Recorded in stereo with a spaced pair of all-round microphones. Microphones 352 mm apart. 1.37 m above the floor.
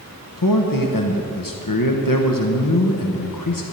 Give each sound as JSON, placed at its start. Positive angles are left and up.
{"t": 0.4, "sound": "a man speaking", "side_deg": 65, "distance_m": 1.0}